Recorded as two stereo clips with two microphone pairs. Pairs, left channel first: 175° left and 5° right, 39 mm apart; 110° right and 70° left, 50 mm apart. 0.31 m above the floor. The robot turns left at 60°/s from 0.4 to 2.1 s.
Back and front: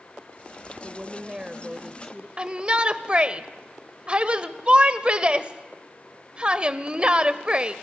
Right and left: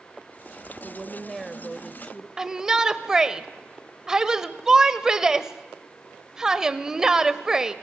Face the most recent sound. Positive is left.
turn(degrees=10)